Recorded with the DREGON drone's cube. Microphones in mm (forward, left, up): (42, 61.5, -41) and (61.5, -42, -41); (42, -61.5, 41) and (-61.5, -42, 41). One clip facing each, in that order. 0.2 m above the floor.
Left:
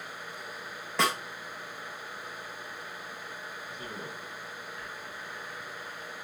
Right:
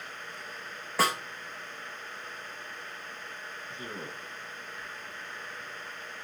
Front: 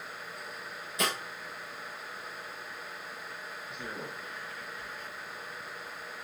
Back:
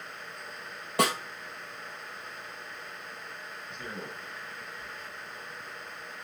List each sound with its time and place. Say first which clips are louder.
1.0 s a snare drum: right 1 dB, back 6 dB; 165° right, 1.8 m
3.7 s a man speaking: right 2 dB, even; 95° right, 1.4 m